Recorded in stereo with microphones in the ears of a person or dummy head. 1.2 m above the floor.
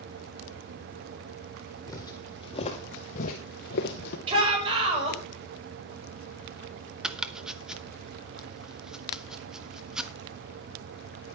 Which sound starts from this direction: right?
A shout, at 4.3 s.